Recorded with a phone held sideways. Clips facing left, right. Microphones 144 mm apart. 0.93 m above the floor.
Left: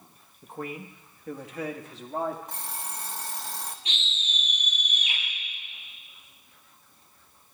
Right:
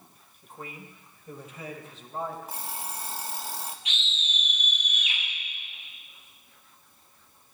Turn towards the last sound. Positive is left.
turn(degrees=35)  # may be behind; listen again after turning